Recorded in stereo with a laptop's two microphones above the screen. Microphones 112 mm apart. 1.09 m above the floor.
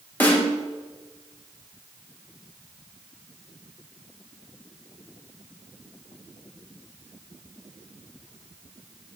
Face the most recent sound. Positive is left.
turn(degrees=15)  # may be behind; listen again after turning